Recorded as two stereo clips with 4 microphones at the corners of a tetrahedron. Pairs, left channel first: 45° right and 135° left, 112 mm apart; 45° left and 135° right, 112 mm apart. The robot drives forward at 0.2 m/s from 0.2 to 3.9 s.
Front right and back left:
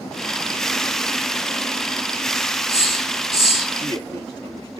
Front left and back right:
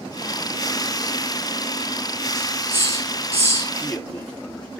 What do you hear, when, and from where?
2.4 s a hiss: 135° right, 4.5 m; by 3.7 s 140° right, 4.5 m
3.8 s a man speaking: 125° left, 3 m